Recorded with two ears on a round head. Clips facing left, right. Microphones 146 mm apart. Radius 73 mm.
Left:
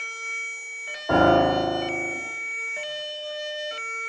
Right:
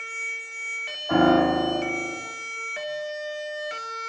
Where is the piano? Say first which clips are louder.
Left 1 dB; 60° left (ahead or behind), 3 m.